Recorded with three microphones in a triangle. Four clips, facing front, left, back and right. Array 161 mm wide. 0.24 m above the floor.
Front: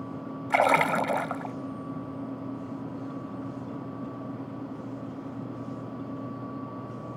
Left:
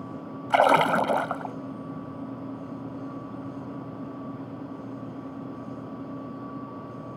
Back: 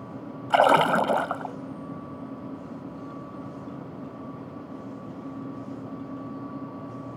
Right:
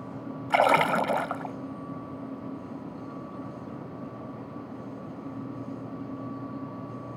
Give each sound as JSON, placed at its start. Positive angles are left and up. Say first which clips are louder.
{"t": 0.5, "sound": "a splash", "louder": "left 2 dB, back 4 dB", "azimuth_deg": 145}